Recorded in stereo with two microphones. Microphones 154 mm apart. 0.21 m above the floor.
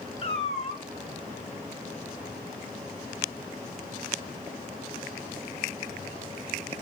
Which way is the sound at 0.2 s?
40° left (ahead or behind).